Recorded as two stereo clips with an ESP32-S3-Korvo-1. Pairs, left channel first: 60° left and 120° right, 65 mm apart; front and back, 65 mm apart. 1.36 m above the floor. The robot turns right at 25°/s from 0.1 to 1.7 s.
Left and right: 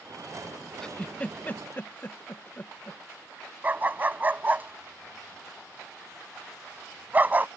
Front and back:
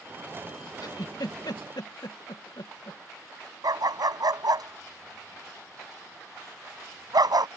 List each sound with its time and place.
0.8 s a giggle: 20° right; by 3.0 s straight ahead
3.6 s a dog barking: 175° left